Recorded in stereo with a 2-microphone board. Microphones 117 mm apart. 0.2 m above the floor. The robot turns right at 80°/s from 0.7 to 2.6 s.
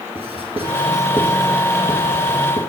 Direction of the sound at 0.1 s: 50° right (ahead or behind).